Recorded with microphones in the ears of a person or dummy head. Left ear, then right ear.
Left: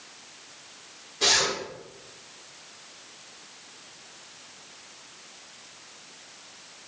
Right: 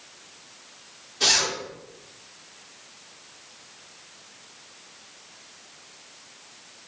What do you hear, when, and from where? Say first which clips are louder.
1.2 s a zipper: right 1 dB; 50° right (ahead or behind), 1.8 m